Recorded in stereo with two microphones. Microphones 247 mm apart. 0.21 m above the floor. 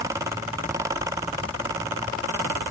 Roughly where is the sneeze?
No sneeze in this recording.